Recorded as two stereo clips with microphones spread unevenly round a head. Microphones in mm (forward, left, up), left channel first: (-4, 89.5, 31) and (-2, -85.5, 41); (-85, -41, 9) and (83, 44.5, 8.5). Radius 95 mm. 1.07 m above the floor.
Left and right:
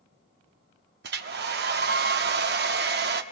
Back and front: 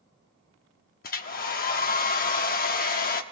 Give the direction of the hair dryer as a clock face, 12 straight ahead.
4 o'clock.